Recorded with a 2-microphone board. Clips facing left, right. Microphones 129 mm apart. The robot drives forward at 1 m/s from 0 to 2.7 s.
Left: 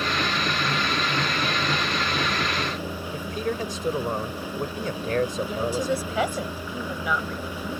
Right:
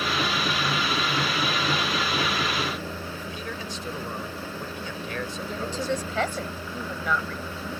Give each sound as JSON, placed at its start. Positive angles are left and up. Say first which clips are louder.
{"t": 3.1, "sound": "a man speaking", "louder": "left 7 dB", "side_deg": 50}
{"t": 5.5, "sound": "a woman speaking", "louder": "left 3 dB", "side_deg": 10}